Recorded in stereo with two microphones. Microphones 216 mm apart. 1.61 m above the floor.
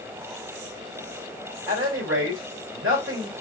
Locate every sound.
1.7 s a man speaking: 75° right (ahead or behind), 1.7 m